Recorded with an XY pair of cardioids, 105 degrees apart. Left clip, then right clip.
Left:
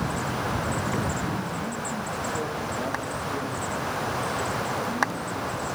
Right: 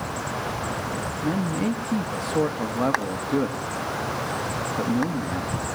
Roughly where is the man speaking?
Right.